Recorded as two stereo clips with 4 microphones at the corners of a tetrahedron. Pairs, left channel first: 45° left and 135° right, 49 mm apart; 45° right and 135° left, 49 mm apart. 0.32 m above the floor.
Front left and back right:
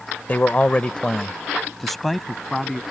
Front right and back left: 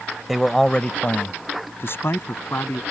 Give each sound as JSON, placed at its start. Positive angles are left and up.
{"t": 0.3, "sound": "a man speaking", "azimuth_deg": 50}